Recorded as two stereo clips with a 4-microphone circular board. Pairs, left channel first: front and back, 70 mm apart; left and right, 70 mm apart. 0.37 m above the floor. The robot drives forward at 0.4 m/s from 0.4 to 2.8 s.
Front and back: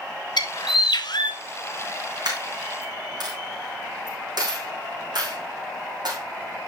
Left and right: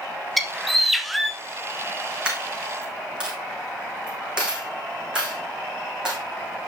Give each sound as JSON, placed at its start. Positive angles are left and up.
{"t": 0.4, "sound": "a bird", "azimuth_deg": 0, "distance_m": 1.1}
{"t": 2.2, "sound": "a dropped coin", "azimuth_deg": -165, "distance_m": 4.0}